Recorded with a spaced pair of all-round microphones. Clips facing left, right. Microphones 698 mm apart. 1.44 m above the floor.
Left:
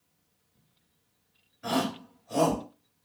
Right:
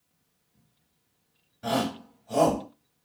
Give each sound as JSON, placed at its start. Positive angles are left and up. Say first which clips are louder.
{"t": 1.6, "sound": "a shout", "louder": "right 1 dB", "side_deg": -60, "distance_m": 2.5}